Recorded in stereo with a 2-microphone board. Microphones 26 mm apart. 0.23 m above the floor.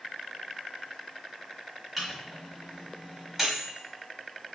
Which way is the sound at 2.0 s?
5° right (ahead or behind).